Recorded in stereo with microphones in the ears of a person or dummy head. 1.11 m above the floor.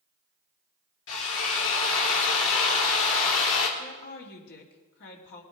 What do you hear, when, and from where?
1.1 s a drill: 75° left (ahead or behind), 2.5 m
3.8 s a woman speaking: 60° left (ahead or behind), 3 m